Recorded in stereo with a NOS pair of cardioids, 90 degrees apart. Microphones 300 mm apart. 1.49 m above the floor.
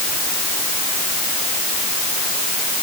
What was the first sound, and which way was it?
Only background noise.